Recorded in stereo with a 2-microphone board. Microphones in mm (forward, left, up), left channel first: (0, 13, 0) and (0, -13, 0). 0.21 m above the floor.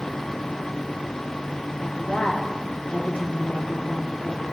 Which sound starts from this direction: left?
A woman speaking, at 1.8 s.